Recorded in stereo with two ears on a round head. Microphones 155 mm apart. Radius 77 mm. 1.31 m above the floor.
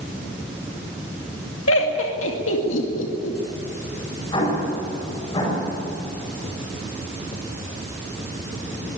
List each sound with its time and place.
1.7 s laughter: 85° left, 2.5 m
4.3 s an explosion: 30° left (ahead or behind), 8 m